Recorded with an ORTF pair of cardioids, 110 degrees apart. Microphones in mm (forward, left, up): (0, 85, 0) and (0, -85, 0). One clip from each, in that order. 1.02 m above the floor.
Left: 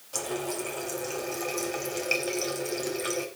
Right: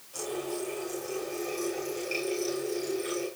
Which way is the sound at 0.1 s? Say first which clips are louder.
Left 2 dB; 60° left.